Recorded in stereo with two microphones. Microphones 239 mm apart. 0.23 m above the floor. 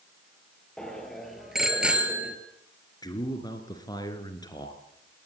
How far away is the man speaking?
About 3 m.